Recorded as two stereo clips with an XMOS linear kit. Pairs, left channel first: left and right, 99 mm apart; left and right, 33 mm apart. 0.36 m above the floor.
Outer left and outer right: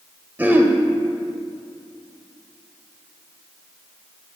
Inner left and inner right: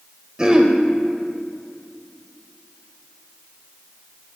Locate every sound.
0.4 s throat clearing: 20° right (ahead or behind), 0.8 m